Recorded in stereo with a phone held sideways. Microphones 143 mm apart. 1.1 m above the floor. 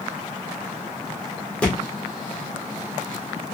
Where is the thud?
5° left (ahead or behind), 1.5 m.